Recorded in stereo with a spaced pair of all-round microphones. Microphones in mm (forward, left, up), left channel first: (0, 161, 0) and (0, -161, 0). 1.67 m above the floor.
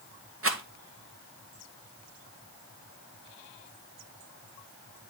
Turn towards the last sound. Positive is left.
turn(degrees=-45)  # may be behind; listen again after turning